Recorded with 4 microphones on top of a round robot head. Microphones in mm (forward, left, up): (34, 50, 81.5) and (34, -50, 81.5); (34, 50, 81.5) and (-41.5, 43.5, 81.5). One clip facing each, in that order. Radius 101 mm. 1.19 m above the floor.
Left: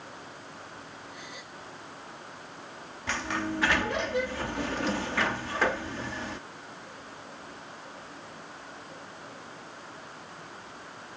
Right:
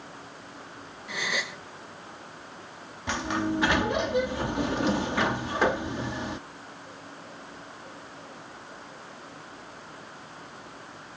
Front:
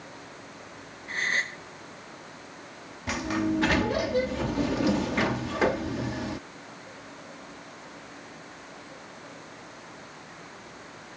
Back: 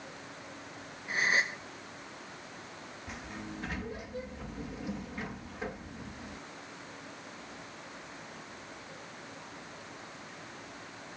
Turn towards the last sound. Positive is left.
turn(degrees=-15)